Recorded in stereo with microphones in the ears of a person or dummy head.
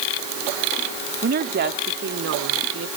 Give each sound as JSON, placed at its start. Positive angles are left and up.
{"t": 1.2, "sound": "a woman speaking", "side_deg": -45}